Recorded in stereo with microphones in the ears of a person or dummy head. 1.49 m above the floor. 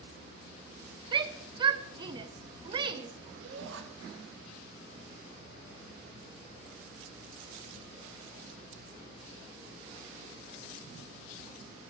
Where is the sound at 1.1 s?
25° right (ahead or behind), 0.6 m.